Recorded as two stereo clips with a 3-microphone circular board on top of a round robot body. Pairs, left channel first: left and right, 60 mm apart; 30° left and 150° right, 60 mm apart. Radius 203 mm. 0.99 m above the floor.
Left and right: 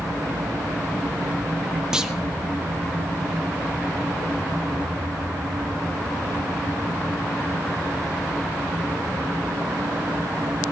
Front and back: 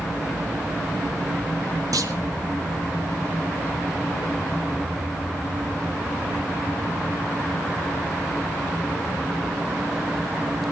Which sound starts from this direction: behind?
A clunk, at 1.9 s.